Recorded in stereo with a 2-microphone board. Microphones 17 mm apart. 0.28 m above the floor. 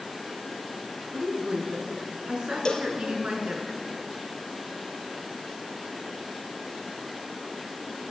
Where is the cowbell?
50° left (ahead or behind), 1.5 m.